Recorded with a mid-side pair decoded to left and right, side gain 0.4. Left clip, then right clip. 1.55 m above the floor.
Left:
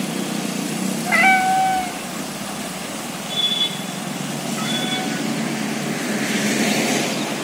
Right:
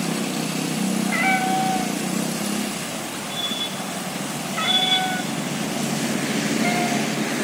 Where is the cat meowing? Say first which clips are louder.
Left 7 dB; 70° left, 2.5 m; by 7.1 s 75° right, 4.5 m.